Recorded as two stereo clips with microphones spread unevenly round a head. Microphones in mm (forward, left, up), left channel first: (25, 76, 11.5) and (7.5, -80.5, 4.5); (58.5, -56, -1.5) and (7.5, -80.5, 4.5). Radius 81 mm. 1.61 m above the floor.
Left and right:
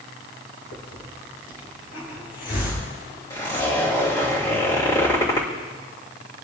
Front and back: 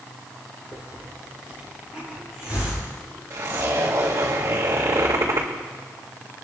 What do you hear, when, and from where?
0.7 s a hiss: 85° left, 6.5 m
3.3 s a zipper: 150° left, 3 m